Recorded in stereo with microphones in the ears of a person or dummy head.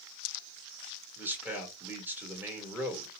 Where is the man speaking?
15° right (ahead or behind), 2.0 m.